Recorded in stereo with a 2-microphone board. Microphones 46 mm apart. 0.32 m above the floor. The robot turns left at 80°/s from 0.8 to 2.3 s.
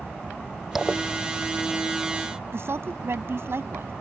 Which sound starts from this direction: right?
A woman speaking, at 2.5 s.